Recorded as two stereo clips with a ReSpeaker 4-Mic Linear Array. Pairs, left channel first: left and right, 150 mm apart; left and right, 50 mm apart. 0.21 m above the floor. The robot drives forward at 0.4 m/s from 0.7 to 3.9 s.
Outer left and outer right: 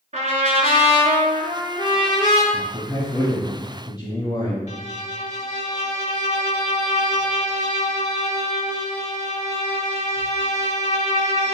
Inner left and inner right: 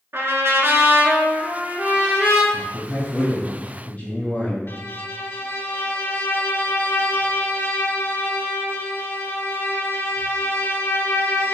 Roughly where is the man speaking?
Left.